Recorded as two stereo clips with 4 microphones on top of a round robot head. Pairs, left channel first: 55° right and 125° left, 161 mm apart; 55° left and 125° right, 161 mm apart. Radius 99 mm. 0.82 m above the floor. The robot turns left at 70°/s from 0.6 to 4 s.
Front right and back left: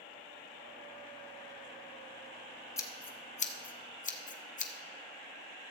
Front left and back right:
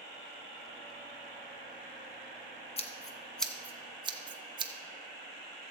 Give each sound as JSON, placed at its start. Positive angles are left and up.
{"t": 2.8, "sound": "scissors", "azimuth_deg": 15, "distance_m": 1.0}